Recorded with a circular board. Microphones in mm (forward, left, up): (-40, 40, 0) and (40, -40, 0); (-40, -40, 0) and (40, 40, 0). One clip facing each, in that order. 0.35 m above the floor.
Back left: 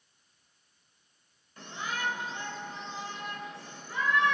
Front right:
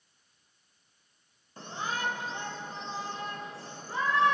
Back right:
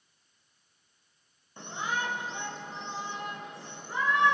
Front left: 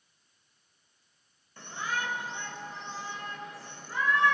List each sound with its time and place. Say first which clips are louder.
1.6 s a shout: front right 2 dB, back right 1 dB; 80° right, 1.6 m